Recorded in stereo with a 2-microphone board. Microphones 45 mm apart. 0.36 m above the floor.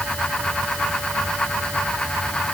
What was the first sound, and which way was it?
Only background noise.